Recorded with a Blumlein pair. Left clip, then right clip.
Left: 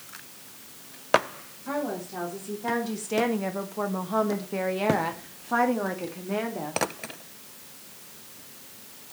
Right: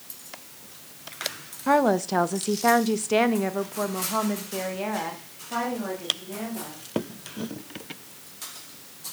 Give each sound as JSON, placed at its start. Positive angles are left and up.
{"t": 1.7, "sound": "a woman speaking", "azimuth_deg": -55, "distance_m": 1.2}